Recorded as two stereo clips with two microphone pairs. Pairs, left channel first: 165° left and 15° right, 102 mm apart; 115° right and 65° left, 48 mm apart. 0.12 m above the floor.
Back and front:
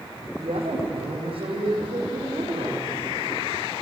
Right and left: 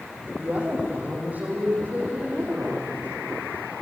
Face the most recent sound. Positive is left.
turn(degrees=15)